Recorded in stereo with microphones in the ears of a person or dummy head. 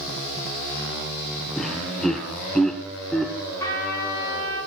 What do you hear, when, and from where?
1.6 s laughter: 5° left (ahead or behind), 1.2 m
3.6 s a trumpet: 15° left (ahead or behind), 4.5 m